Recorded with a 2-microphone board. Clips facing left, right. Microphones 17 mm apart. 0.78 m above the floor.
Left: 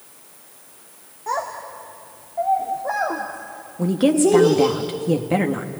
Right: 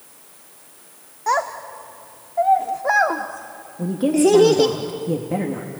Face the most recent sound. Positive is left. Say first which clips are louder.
# even
turn(degrees=45)  # may be behind; listen again after turning